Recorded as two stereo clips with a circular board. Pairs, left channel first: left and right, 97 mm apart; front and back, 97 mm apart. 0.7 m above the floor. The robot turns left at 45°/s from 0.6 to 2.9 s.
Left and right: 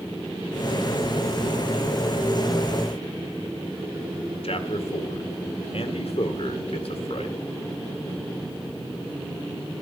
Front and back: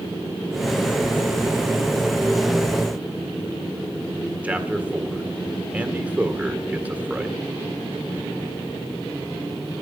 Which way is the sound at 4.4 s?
105° left.